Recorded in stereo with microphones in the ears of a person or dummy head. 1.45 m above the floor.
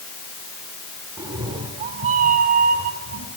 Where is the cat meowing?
15° right (ahead or behind), 1.5 m; by 3.3 s 50° right (ahead or behind), 2 m.